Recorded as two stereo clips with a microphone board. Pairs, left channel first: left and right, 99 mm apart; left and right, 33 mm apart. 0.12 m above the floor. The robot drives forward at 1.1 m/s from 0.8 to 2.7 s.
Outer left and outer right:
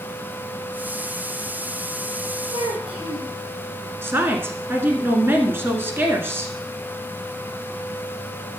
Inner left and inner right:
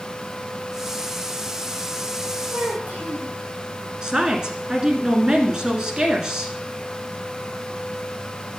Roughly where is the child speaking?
Right.